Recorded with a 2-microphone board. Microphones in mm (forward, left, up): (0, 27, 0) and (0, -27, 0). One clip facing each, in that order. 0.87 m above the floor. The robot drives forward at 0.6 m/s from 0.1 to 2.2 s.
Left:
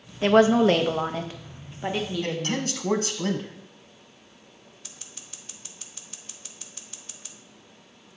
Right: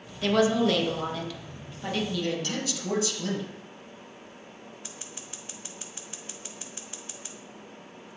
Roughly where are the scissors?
Right.